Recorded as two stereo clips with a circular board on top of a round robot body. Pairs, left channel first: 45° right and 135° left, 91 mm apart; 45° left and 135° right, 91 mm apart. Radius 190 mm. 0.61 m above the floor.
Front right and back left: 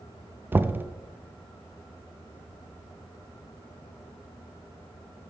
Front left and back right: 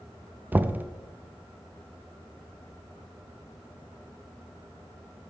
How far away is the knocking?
About 0.6 m.